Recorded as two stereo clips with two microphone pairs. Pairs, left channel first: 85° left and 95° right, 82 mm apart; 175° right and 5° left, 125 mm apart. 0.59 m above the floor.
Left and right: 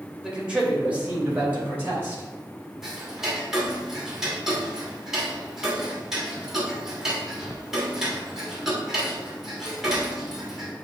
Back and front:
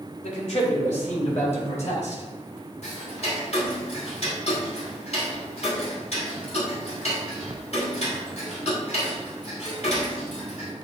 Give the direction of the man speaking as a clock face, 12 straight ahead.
6 o'clock.